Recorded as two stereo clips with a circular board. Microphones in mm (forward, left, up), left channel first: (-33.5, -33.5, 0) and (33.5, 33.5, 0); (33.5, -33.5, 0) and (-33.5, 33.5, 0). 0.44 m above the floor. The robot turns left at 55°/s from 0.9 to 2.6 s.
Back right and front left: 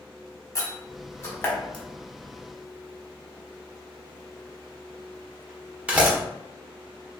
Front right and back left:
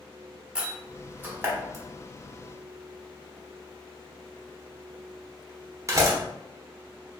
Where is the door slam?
155° right, 0.9 m; by 6.2 s 115° left, 0.9 m.